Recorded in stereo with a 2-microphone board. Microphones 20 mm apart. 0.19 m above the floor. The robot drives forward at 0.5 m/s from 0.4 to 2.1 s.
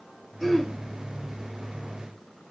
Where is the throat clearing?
10° left (ahead or behind), 0.6 m.